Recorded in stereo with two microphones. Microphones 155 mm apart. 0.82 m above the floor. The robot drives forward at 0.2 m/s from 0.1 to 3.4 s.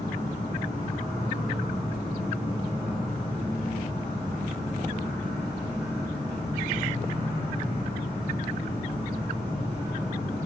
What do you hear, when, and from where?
0.0 s an insect: 55° right (ahead or behind), 1.3 m; by 10.5 s 40° right (ahead or behind), 1.8 m